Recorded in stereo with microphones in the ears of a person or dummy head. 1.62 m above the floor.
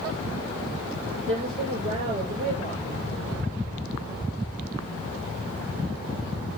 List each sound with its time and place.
1.3 s a woman speaking: 35° right (ahead or behind), 6.5 m